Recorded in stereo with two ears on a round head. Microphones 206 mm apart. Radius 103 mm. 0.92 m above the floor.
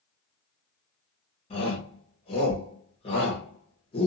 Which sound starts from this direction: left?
A shout, at 1.5 s.